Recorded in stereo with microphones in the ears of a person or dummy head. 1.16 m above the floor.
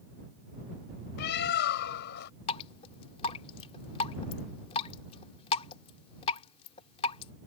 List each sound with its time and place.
1.2 s a bird: 65° left (ahead or behind)
2.5 s dripping: 35° left (ahead or behind)